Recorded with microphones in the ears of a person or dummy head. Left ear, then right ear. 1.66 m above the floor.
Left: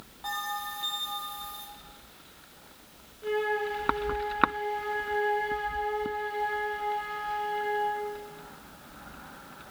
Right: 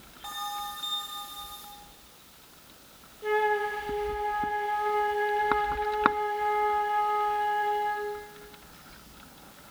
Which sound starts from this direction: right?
A flute, at 3.2 s.